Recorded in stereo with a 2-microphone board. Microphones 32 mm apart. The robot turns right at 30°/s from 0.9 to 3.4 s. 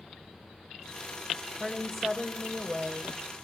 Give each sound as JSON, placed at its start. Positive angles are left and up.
{"t": 1.6, "sound": "a woman speaking", "side_deg": 0, "distance_m": 1.5}